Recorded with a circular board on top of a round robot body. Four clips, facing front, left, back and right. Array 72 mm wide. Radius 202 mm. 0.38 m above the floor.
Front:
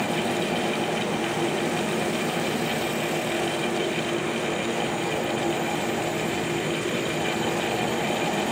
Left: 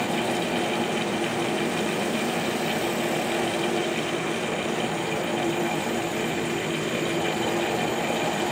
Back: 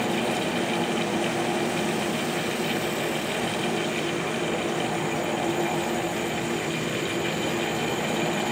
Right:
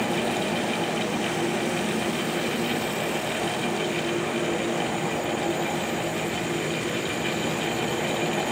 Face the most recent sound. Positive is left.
No sound to turn to.